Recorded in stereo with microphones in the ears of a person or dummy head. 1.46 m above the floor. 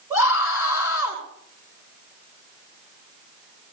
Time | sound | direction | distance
0.1 | a scream | 20° right (ahead or behind) | 6.5 m